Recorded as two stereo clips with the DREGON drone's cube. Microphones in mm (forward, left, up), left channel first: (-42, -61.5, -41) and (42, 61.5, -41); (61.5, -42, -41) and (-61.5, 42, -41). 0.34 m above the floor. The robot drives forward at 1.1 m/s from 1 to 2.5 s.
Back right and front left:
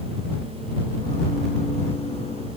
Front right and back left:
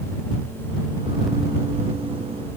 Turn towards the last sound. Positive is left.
No sound to turn to.